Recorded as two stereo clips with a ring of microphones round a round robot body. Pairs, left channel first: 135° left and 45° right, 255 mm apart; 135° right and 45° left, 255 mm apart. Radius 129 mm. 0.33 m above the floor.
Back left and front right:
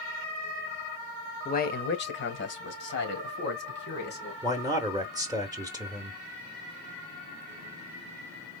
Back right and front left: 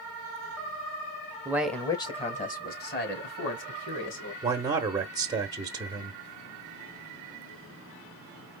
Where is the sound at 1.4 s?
110° left, 0.9 m; by 4.3 s 175° right, 3 m.